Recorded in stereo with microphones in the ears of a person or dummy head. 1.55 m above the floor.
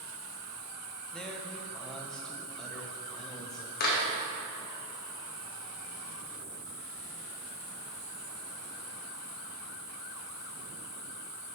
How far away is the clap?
About 2.0 m.